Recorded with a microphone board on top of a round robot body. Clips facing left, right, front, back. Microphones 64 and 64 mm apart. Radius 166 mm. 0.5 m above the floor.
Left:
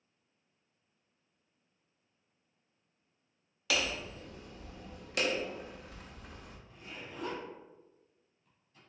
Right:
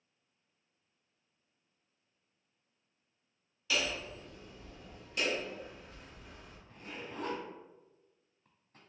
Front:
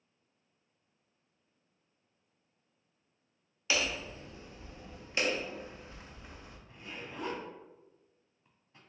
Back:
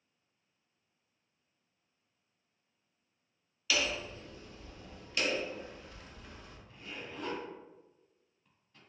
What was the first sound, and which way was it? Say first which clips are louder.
Hammering: left 1 dB, even; 65° left.